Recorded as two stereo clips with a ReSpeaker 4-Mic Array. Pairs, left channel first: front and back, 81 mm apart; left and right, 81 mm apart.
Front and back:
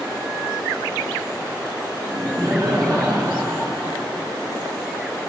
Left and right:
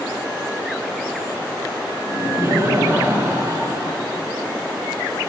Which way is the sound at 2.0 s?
140° right.